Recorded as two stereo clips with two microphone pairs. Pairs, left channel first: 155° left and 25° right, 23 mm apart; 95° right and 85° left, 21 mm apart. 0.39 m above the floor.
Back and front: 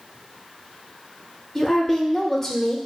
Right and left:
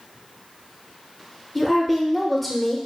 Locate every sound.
1.6 s a woman speaking: 165° right, 0.8 m